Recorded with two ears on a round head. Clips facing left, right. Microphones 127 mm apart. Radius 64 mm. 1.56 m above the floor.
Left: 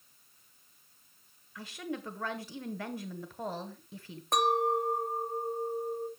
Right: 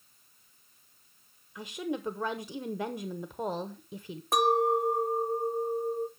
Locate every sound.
1.6 s a woman speaking: 15° right (ahead or behind), 0.7 m
4.3 s a clink: 5° right (ahead or behind), 0.7 m